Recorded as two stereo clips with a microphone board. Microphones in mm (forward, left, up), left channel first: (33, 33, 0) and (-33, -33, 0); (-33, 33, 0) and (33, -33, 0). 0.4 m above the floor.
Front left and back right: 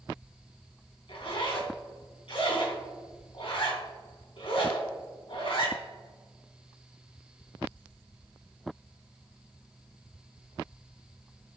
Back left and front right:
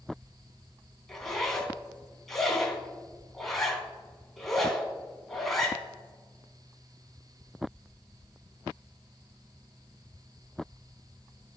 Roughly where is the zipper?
Ahead left.